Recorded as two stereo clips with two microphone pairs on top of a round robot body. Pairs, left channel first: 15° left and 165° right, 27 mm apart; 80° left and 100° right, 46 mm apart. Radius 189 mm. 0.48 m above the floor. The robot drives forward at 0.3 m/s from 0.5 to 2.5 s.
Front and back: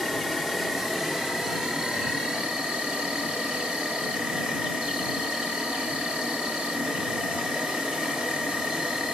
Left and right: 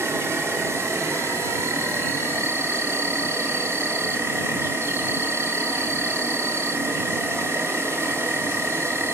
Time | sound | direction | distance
0.0 | an insect | 90° right | 1.0 m